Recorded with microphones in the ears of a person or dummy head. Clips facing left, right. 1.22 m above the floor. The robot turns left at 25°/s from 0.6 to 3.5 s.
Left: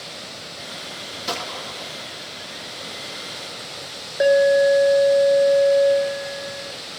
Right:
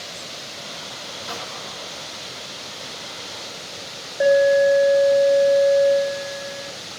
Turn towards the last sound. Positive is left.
turn(degrees=30)  # may be behind; listen again after turning